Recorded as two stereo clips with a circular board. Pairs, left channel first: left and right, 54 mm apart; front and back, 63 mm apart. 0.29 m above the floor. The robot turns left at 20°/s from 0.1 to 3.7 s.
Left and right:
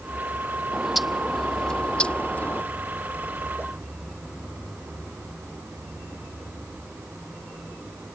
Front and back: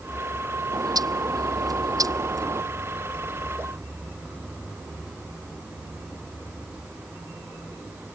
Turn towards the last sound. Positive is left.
turn(degrees=125)